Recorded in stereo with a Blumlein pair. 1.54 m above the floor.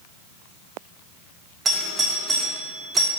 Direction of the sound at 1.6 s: 20° right.